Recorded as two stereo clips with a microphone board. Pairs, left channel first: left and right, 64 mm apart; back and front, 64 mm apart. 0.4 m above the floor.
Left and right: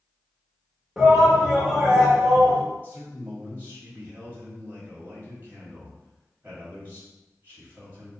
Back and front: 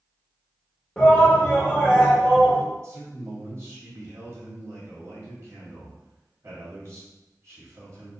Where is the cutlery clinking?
I don't hear cutlery clinking.